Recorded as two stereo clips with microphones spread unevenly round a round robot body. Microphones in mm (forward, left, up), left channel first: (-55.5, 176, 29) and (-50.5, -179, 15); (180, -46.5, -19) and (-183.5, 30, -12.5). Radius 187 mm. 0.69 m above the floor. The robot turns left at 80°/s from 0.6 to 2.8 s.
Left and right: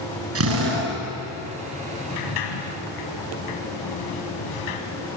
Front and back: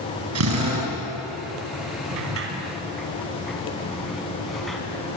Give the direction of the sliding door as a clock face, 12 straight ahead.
8 o'clock.